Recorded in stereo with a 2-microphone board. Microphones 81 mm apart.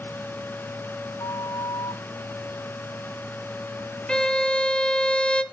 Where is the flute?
65° left (ahead or behind), 4.5 m.